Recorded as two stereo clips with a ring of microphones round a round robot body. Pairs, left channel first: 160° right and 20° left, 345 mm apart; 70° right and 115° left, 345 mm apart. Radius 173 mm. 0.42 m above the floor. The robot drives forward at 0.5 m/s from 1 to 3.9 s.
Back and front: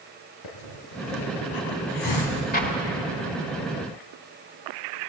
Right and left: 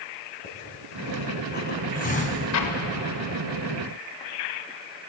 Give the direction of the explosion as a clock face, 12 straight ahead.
3 o'clock.